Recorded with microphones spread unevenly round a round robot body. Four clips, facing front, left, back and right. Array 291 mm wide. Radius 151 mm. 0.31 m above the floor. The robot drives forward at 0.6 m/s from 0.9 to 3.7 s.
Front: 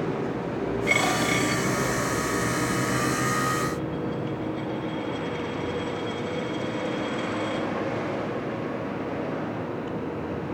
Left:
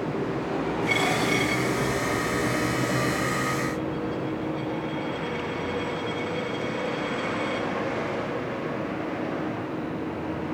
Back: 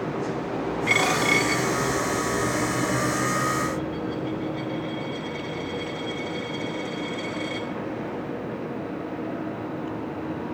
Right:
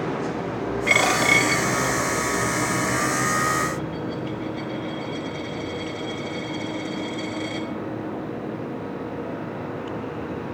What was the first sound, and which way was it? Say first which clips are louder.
A dropped coin: right 6 dB, back 2 dB; 125° right.